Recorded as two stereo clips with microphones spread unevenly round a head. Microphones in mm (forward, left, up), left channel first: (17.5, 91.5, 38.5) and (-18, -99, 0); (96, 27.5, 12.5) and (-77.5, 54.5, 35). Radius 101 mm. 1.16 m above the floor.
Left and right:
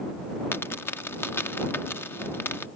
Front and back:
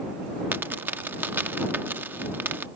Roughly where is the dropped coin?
Behind left.